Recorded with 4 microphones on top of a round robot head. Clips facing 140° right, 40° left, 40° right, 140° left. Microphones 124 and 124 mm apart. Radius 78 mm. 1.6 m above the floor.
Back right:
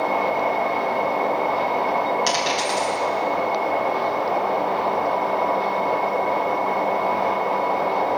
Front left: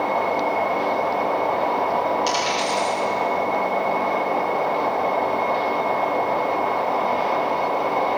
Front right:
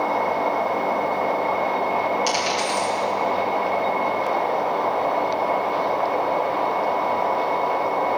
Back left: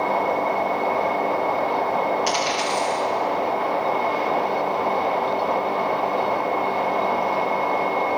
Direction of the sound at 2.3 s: 105° right.